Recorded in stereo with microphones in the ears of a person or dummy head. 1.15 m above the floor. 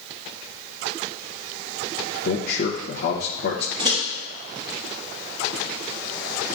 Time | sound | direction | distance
2.2 | a man speaking | 50° left (ahead or behind) | 0.7 m
3.8 | a microwave | 30° right (ahead or behind) | 3 m